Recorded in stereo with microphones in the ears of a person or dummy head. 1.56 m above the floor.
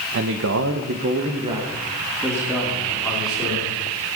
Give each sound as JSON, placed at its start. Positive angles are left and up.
{"t": 0.1, "sound": "a man speaking", "side_deg": -65, "distance_m": 1.3}